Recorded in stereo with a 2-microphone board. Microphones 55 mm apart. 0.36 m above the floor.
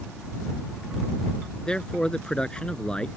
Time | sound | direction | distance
1.7 | a man speaking | 15° left (ahead or behind) | ?